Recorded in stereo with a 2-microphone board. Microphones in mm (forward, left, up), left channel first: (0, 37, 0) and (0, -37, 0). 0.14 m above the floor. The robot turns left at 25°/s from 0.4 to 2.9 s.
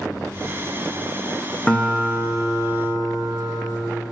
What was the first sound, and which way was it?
A guitar, 15° left.